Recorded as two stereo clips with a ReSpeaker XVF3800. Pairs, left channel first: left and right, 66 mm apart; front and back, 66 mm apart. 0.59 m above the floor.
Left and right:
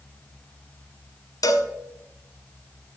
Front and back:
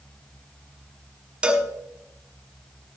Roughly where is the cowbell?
Left.